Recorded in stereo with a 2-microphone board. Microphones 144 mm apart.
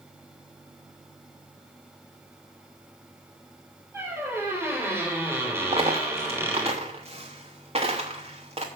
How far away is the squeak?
About 3 m.